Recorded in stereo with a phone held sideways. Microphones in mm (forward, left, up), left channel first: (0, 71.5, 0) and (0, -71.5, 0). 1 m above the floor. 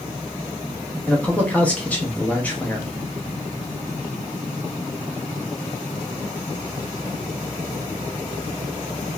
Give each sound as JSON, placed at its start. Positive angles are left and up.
{"t": 1.1, "sound": "a man speaking", "side_deg": 10, "distance_m": 0.8}